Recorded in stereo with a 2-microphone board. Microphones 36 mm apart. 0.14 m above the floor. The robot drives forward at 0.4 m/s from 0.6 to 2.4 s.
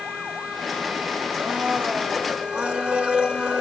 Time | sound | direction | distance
1.3 | a blender | 35° right (ahead or behind) | 1.5 m